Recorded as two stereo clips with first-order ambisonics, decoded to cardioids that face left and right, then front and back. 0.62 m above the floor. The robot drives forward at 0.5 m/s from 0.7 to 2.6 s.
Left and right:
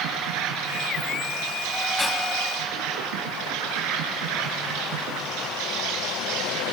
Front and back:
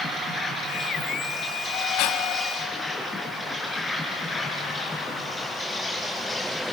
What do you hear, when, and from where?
0.0 s an insect: 70° right, 5 m; by 6.8 s 80° right, 5 m
2.0 s breathing: 10° left, 1.7 m